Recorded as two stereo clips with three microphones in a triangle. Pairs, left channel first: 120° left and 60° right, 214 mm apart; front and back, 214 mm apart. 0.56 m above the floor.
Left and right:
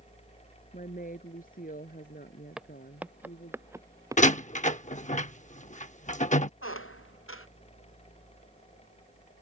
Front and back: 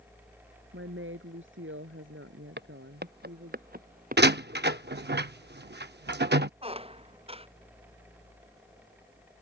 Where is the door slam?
165° left.